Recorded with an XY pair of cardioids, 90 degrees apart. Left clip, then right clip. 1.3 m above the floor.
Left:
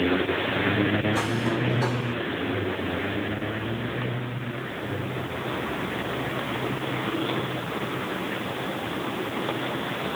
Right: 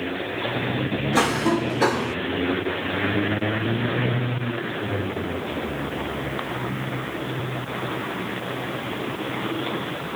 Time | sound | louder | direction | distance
1.1 | a cough | right 5 dB | 70° right | ?